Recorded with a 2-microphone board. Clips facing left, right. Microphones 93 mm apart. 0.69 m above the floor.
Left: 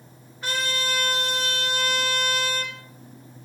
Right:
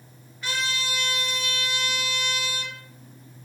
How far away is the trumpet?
About 3.5 m.